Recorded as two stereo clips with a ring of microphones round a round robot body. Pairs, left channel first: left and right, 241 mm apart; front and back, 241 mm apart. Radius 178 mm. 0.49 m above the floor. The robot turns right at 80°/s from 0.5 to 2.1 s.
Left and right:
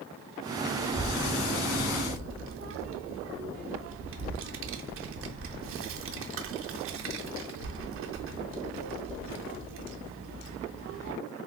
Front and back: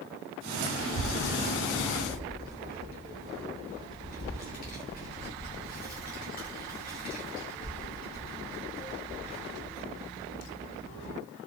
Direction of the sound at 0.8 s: 165° right.